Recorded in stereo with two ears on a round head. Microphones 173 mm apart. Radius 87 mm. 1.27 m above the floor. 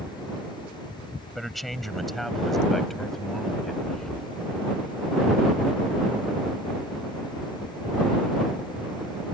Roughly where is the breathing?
Centre.